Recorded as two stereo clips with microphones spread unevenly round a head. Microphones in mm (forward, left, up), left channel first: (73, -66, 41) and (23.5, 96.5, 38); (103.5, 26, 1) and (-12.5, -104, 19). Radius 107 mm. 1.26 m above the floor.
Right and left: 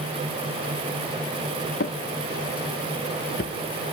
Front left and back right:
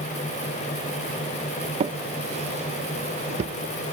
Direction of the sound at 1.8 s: 95° right.